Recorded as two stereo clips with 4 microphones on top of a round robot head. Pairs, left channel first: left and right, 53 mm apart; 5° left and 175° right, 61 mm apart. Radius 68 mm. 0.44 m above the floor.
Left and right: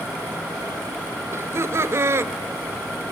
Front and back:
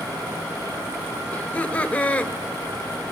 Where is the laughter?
65° right, 2 m.